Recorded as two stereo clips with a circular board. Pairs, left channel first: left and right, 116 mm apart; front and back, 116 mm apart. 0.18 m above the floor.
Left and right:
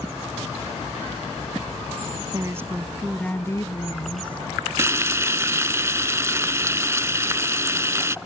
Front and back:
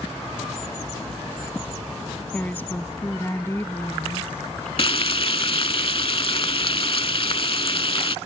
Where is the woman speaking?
65° right; by 4.5 s 70° left.